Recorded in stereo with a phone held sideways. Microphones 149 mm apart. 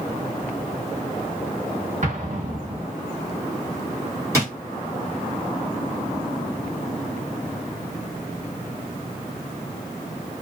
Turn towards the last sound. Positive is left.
turn(degrees=-20)  # may be behind; listen again after turning